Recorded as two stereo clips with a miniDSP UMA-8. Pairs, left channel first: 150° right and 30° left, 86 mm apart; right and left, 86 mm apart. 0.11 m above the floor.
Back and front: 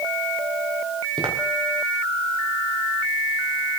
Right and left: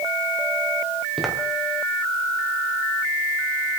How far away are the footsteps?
About 3.5 m.